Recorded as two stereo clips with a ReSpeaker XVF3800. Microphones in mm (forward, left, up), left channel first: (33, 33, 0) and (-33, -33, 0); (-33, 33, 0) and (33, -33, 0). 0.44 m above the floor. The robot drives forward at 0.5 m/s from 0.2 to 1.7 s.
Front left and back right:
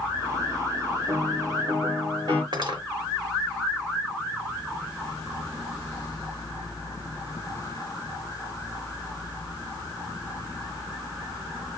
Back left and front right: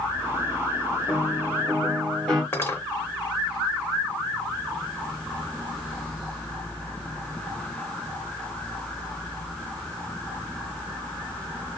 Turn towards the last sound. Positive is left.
turn(degrees=-160)